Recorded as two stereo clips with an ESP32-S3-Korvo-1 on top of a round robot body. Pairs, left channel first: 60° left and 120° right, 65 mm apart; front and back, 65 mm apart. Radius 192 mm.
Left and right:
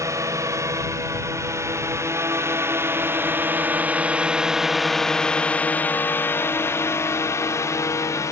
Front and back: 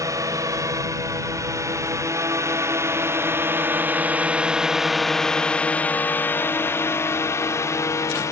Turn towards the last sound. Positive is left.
turn(degrees=30)